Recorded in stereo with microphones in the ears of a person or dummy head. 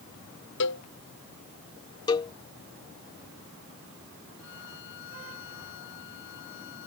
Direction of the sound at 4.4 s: 65° left (ahead or behind).